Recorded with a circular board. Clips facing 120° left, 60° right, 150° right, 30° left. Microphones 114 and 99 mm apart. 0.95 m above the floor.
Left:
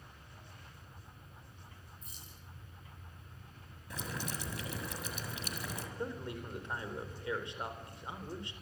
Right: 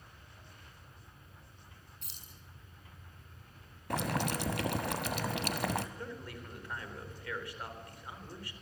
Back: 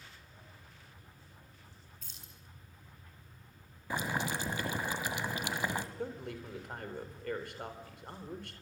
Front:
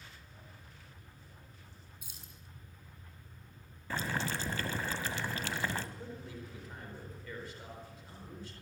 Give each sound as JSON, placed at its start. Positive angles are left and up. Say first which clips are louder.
{"t": 2.0, "sound": "keys jangling", "louder": "left 2 dB, front 1 dB", "azimuth_deg": -50, "distance_m": 6.0}
{"t": 3.9, "sound": "boiling", "louder": "right 9 dB, back 1 dB", "azimuth_deg": -75, "distance_m": 1.8}
{"t": 6.0, "sound": "a man speaking", "louder": "left 4 dB, back 5 dB", "azimuth_deg": -170, "distance_m": 4.0}